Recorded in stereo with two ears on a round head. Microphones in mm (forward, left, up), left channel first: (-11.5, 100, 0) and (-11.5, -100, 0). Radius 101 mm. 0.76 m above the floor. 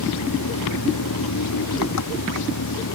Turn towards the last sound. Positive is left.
turn(degrees=85)